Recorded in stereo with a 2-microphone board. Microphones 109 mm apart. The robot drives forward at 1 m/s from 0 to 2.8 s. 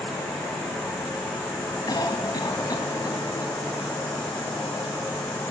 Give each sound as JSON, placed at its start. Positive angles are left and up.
{"t": 0.0, "sound": "an insect", "side_deg": 10, "distance_m": 7.0}
{"t": 1.9, "sound": "a cough", "side_deg": 40, "distance_m": 1.8}